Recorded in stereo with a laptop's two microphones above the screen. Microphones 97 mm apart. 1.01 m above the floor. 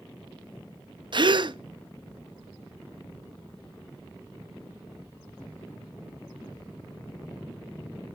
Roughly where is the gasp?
Right.